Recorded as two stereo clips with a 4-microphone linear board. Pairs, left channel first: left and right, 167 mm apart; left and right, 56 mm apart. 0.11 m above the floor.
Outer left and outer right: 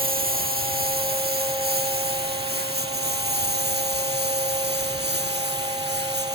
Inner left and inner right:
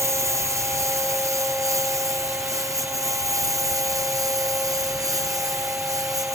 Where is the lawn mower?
60° right (ahead or behind); by 6.3 s 85° right.